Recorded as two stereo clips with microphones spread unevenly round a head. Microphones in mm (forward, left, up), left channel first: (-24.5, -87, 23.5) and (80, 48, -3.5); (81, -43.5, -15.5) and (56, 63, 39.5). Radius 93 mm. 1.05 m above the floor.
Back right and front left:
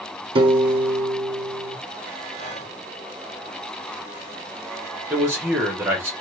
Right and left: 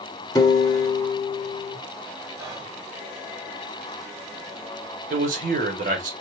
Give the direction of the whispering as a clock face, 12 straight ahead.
6 o'clock.